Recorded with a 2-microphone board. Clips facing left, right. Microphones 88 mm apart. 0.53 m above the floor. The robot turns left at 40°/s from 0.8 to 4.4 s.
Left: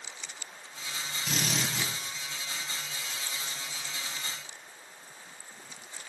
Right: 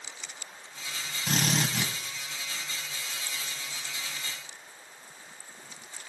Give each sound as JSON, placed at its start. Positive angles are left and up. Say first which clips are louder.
{"t": 1.3, "sound": "a drill", "louder": "right 5 dB", "side_deg": -45, "distance_m": 3.5}